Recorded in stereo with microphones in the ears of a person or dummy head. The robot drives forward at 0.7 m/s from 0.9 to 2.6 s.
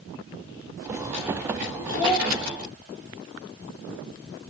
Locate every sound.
1.9 s a child speaking: 15° left (ahead or behind), 2.5 m